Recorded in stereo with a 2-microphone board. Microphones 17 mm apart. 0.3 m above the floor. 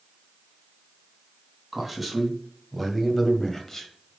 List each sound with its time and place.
1.7 s a man speaking: 5° right (ahead or behind), 2.5 m; by 4.2 s 25° left (ahead or behind), 1.5 m